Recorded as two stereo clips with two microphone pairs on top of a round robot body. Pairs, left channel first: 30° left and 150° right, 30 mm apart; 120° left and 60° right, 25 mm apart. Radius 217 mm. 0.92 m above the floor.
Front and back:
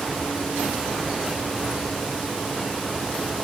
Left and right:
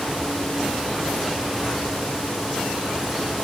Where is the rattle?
No rattle in this recording.